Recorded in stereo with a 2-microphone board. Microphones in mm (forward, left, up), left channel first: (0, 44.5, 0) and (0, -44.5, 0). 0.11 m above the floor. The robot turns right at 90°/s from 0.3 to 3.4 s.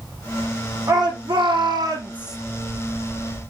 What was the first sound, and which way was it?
A shout, 135° right.